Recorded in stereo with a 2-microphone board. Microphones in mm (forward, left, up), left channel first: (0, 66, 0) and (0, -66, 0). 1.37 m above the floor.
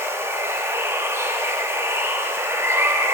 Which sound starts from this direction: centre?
Running water, at 0.0 s.